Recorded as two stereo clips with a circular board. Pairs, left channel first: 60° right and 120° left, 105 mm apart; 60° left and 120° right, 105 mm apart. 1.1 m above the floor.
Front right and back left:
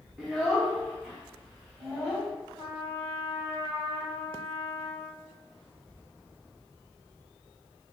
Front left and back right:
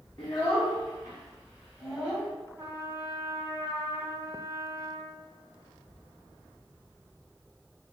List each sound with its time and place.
0.2 s a child speaking: 20° left, 1.3 m; by 2.3 s 10° right, 3 m
2.6 s a trumpet: 55° right, 1.6 m